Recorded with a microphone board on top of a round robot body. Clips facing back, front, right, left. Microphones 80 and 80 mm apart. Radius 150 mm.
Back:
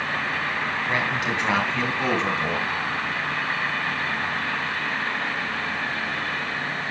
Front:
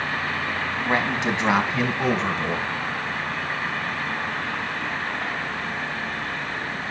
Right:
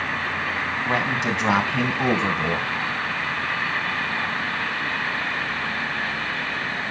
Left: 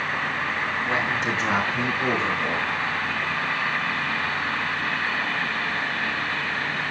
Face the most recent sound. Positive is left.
turn(degrees=-100)